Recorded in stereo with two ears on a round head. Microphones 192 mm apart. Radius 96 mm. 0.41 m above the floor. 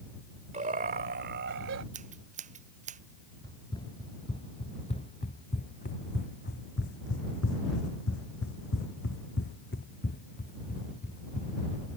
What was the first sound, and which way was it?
Laughter, 35° right (ahead or behind).